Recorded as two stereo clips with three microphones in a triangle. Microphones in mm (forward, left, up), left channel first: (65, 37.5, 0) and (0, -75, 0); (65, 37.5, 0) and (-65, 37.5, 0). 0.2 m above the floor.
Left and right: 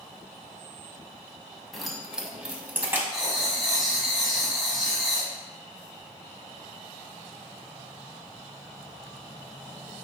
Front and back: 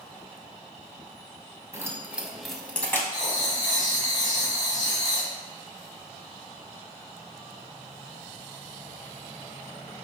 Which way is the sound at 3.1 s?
35° right.